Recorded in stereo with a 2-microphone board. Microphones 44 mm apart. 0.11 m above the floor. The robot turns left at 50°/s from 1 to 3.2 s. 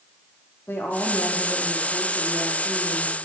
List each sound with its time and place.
0.7 s a woman speaking: 75° left, 4.5 m; by 3.1 s 30° right, 4.5 m